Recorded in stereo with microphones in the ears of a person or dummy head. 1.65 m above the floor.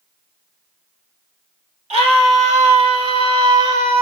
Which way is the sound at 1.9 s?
35° right (ahead or behind).